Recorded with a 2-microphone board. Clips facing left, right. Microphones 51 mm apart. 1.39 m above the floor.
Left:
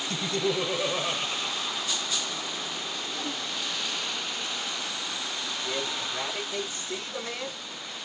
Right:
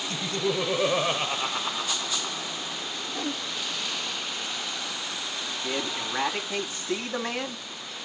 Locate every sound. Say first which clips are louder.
0.1 s laughter: even; 20° left (ahead or behind), 0.6 m; by 2.5 s 75° right (ahead or behind), 1.1 m
3.1 s a whoosh: right 5 dB; 25° right (ahead or behind), 0.9 m
5.6 s a man speaking: right 2 dB; 80° right, 2.5 m